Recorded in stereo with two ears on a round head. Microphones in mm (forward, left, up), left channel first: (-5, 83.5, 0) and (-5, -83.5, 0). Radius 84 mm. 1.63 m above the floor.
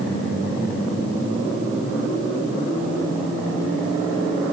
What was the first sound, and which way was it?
Only background noise.